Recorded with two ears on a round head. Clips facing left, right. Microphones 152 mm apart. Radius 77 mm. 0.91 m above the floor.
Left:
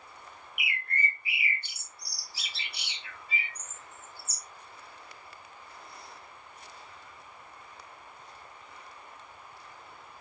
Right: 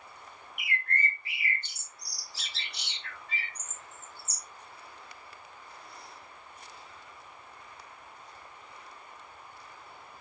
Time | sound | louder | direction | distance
0.6 | a bird | right 1 dB | 10° left (ahead or behind) | 1.0 m